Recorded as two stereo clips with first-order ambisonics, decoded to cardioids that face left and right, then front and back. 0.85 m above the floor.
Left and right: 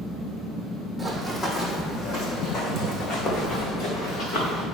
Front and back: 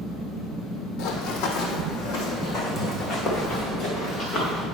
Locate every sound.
1.0 s running footsteps: 5° left, 1.5 m; by 4.7 s 65° left, 4 m